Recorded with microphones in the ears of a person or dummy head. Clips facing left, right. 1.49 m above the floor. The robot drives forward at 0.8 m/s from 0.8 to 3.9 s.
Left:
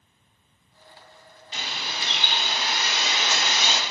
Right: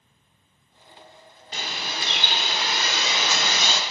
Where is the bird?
45° right (ahead or behind), 2 m; by 3.8 s 75° right (ahead or behind), 1.5 m.